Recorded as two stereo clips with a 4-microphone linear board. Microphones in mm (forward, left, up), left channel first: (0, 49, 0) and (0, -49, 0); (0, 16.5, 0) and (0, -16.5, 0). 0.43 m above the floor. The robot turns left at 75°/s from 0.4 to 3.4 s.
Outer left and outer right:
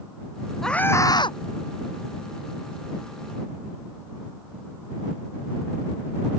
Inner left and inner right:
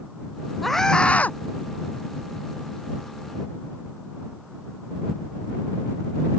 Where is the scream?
175° left; by 1.4 s 120° left.